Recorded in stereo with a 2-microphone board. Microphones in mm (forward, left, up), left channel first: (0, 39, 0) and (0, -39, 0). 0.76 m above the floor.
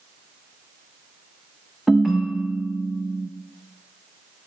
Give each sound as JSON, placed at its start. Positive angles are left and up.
{"t": 1.9, "sound": "a ringtone", "side_deg": 0, "distance_m": 0.6}